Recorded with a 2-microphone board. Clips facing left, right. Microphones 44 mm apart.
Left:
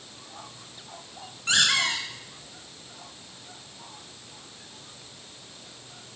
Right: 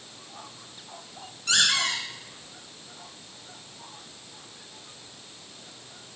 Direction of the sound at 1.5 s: 35° left (ahead or behind).